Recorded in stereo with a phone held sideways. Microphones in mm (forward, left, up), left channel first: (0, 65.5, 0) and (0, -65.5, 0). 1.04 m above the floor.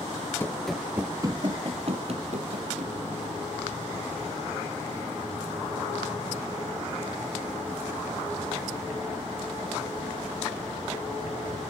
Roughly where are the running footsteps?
Centre.